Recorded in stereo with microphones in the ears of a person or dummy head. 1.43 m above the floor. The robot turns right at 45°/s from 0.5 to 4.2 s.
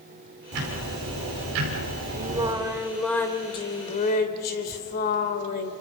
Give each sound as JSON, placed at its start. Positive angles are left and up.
{"t": 0.5, "sound": "ticking", "azimuth_deg": -120, "distance_m": 5.0}
{"t": 2.2, "sound": "singing", "azimuth_deg": -35, "distance_m": 2.0}